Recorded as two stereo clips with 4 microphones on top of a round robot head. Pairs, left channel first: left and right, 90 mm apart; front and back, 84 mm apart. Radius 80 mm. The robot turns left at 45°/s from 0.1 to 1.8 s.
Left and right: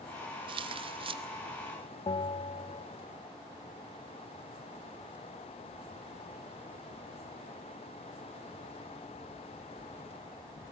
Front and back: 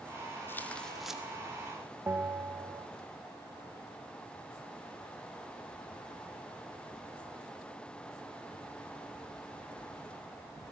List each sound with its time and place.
0.5 s tearing paper: 65° right, 1.8 m; by 1.2 s 100° right, 1.8 m
2.1 s a bell: 115° left, 0.9 m